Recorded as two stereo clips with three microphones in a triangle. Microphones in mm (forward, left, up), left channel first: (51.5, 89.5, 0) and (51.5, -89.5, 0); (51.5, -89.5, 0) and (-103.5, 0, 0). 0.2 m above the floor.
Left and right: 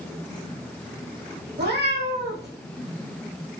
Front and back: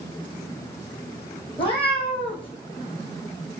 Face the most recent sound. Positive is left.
turn(degrees=-90)